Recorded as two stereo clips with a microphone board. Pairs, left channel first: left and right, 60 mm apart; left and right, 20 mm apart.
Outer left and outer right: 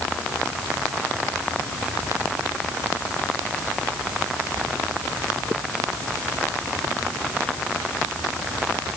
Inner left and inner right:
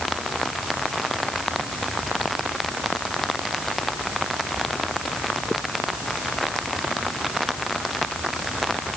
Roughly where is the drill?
I don't hear a drill.